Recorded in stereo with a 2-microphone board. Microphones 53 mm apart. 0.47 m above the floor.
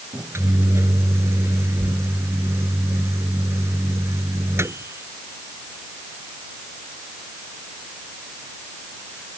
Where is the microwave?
55° right (ahead or behind).